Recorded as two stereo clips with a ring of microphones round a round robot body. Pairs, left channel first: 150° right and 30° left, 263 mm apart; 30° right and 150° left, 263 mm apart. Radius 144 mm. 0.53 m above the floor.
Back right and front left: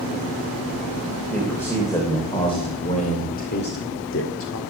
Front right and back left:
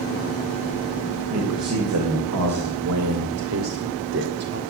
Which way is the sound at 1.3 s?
125° left.